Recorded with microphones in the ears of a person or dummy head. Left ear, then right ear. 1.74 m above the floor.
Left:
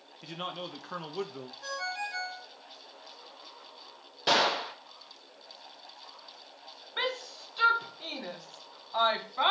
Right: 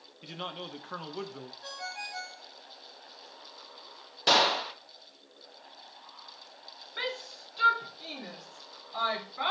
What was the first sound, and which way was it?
A man speaking, centre (ahead or behind).